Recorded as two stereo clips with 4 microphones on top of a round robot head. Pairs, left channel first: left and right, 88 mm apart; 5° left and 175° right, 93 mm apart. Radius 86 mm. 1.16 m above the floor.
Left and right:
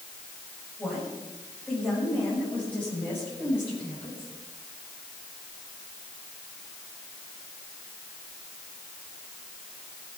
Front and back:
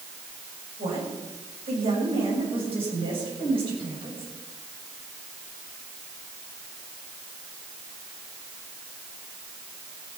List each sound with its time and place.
0.8 s a woman speaking: 175° left, 7 m; by 4.3 s 160° left, 7.5 m